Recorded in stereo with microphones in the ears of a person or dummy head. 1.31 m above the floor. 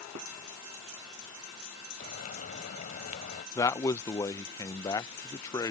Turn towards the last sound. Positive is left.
turn(degrees=20)  # may be behind; listen again after turning